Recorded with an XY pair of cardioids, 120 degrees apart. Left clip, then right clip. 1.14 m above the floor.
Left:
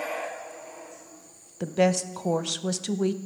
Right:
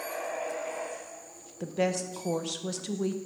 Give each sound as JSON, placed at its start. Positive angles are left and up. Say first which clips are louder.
{"t": 1.6, "sound": "a woman speaking", "louder": "left 6 dB", "azimuth_deg": 30, "distance_m": 0.6}